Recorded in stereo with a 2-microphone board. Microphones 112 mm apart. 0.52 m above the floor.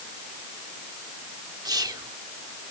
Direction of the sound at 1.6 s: 35° right (ahead or behind).